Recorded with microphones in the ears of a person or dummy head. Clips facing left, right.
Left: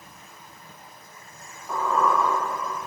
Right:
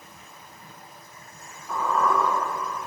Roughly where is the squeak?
Left.